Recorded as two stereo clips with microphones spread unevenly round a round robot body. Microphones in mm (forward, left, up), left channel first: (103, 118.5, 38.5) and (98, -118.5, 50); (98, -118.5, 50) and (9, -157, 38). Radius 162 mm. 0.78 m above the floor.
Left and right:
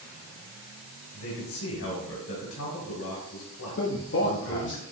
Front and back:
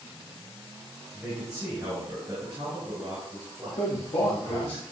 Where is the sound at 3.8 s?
70° left, 1.5 m.